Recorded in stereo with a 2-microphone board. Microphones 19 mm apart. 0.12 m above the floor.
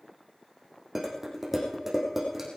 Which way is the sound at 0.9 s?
15° right (ahead or behind).